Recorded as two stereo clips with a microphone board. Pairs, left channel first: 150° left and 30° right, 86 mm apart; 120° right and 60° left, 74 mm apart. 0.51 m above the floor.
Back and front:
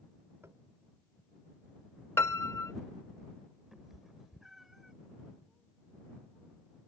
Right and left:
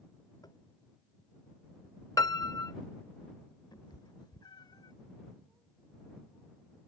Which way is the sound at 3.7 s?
115° right.